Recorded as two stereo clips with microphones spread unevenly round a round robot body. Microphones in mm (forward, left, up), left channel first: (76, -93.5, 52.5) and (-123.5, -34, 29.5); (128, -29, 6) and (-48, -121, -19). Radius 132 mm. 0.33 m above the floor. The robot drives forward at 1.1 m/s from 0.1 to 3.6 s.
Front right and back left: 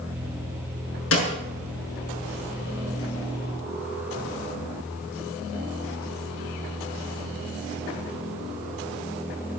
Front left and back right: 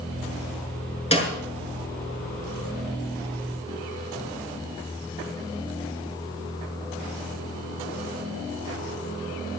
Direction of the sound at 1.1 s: 30° right.